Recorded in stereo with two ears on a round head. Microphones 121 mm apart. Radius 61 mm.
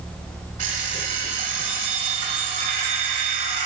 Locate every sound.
0.6 s an alarm clock: 60° right (ahead or behind), 2.5 m